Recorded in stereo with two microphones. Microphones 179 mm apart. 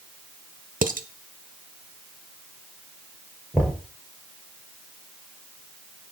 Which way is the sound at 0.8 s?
50° right (ahead or behind).